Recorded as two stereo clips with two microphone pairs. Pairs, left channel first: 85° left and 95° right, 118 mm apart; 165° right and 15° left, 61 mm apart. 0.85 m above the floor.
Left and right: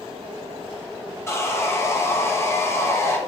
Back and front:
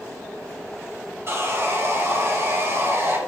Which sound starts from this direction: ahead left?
Sawing, at 1.3 s.